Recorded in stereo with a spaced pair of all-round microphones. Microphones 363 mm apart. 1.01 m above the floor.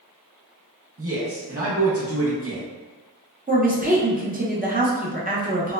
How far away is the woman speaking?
About 0.5 m.